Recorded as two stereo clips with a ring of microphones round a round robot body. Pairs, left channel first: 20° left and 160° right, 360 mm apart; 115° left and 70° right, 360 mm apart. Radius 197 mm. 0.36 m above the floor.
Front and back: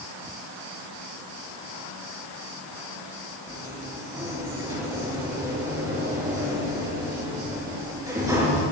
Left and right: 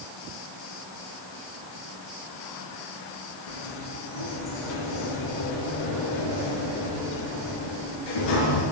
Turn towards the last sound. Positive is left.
turn(degrees=120)